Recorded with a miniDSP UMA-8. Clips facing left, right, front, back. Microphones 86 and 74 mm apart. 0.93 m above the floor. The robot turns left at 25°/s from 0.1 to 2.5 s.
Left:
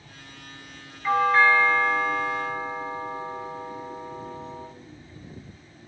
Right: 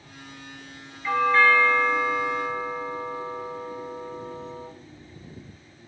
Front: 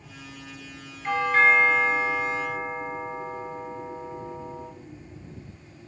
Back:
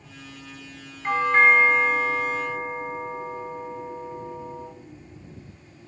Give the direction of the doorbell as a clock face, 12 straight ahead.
7 o'clock.